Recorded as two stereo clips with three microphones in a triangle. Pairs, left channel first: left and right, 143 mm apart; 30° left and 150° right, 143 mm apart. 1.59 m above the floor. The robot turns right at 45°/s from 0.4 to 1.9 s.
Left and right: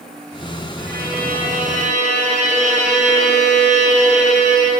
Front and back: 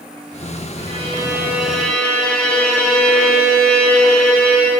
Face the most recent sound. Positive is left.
turn(degrees=-55)